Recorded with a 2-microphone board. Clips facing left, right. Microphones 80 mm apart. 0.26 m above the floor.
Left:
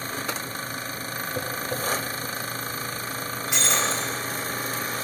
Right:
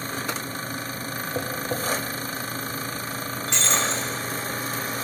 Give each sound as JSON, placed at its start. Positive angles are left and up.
{"t": 1.4, "sound": "tapping", "side_deg": -35, "distance_m": 1.8}
{"t": 3.5, "sound": "breaking glass", "side_deg": 10, "distance_m": 2.5}